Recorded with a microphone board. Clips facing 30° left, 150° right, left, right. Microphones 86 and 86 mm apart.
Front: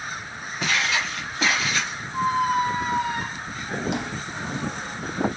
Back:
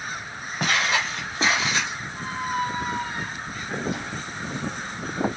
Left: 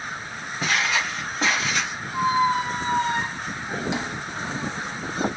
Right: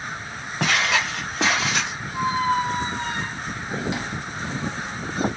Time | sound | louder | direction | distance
0.6 | footsteps | back 1 dB, right 2 dB | 110° right | 1.8 m
2.1 | a squeak | front 7 dB, left 1 dB | 20° left | 0.7 m